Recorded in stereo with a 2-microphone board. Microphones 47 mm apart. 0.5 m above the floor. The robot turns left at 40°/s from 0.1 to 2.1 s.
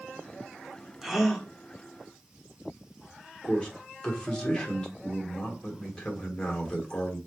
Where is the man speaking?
15° left (ahead or behind), 1.2 m.